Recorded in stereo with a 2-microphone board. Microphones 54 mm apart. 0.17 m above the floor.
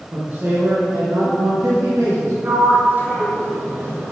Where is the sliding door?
40° right (ahead or behind), 2 m.